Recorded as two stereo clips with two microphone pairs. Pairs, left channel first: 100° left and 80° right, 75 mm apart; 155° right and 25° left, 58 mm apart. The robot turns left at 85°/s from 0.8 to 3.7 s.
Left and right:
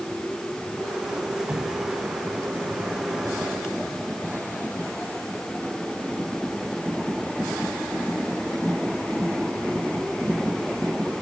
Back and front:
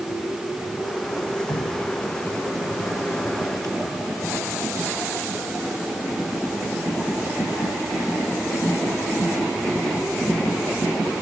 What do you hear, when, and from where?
1.5 s dripping: 145° right; by 3.8 s 25° left